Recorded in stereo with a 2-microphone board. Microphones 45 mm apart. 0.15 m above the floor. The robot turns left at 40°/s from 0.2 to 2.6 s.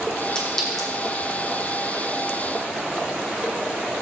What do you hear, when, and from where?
0.3 s a clink: 20° left (ahead or behind), 3.5 m; by 0.9 s centre (ahead or behind), 3.5 m